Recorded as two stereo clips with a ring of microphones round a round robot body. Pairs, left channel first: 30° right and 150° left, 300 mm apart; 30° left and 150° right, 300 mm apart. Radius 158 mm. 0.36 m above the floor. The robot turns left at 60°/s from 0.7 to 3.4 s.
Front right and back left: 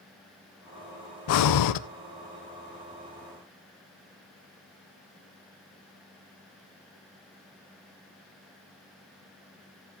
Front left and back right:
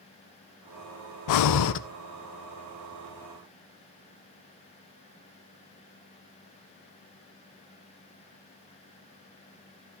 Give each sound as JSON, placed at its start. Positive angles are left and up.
{"t": 1.3, "sound": "breathing", "azimuth_deg": 10, "distance_m": 0.6}